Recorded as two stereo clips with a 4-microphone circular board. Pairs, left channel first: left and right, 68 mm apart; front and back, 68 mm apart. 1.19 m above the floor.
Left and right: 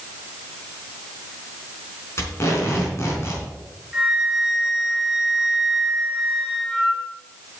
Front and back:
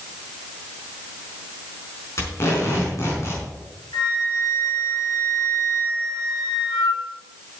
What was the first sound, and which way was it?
Tape being pulled, 45° left.